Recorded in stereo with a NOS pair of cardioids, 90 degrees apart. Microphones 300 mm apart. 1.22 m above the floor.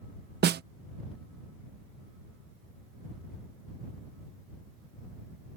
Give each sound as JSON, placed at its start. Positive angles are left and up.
{"t": 0.4, "sound": "a snare drum", "azimuth_deg": -35}